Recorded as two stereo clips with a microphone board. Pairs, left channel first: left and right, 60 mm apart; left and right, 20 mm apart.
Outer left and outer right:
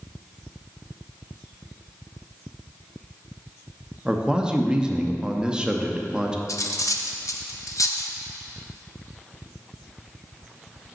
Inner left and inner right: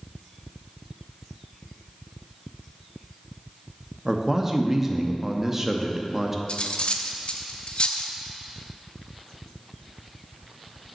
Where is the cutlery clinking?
60° left (ahead or behind), 0.6 m.